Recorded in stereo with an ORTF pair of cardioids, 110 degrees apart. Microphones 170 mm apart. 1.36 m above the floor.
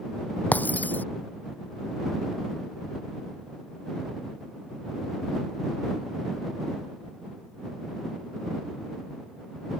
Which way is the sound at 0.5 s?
10° left.